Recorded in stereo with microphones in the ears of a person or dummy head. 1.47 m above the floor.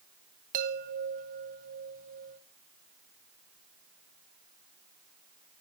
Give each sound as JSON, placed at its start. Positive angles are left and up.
{"t": 0.5, "sound": "a chime", "side_deg": -45, "distance_m": 1.0}